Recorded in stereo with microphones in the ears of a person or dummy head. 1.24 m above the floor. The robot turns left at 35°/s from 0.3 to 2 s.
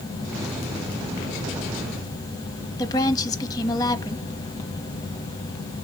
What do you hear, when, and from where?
2.8 s a woman speaking: 15° left (ahead or behind), 1.8 m